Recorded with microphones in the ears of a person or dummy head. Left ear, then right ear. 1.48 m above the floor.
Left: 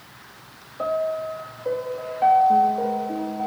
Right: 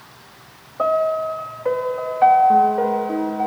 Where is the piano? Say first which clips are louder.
Right 6 dB; 50° right (ahead or behind), 1.1 m.